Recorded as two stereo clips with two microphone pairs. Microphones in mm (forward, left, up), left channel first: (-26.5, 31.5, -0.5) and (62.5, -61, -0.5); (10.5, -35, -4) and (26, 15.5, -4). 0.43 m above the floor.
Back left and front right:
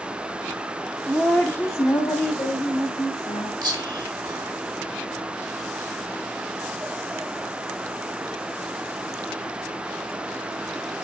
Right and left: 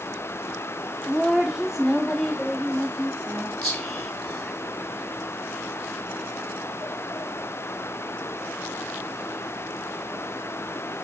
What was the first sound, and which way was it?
A woman speaking, 5° left.